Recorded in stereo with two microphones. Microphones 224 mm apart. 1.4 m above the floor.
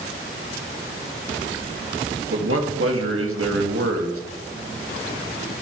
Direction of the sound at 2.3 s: 75° right (ahead or behind).